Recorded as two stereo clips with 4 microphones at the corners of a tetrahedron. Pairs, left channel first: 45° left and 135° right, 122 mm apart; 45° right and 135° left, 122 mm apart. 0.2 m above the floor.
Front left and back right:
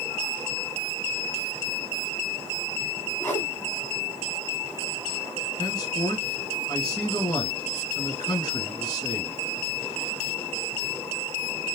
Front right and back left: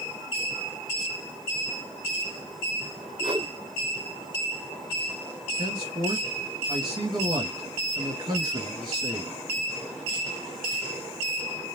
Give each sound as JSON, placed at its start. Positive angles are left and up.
{"t": 3.2, "sound": "a whoosh", "azimuth_deg": 110, "distance_m": 1.0}
{"t": 5.6, "sound": "a man speaking", "azimuth_deg": 95, "distance_m": 3.5}